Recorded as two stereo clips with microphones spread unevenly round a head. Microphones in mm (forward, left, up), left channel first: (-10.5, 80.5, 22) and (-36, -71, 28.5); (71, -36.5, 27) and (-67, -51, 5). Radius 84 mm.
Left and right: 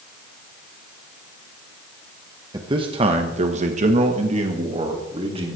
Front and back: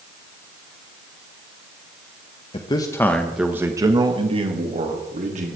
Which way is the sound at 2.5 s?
40° right.